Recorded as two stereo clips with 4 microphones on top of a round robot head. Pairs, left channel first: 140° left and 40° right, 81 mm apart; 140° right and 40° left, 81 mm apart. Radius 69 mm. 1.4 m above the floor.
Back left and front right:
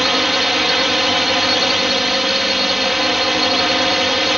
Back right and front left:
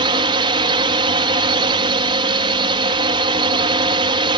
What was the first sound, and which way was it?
A drone, 50° left.